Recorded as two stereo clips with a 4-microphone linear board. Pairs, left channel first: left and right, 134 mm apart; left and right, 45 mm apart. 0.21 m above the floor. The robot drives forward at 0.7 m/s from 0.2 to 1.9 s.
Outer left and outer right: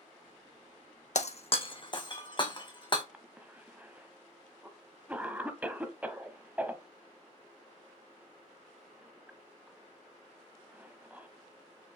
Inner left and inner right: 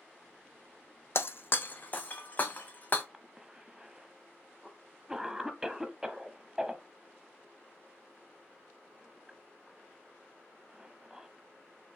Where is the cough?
10° right (ahead or behind), 1.0 m.